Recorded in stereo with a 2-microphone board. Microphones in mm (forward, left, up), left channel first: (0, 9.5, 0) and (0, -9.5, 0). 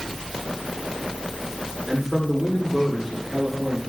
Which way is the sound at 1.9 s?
Centre (ahead or behind).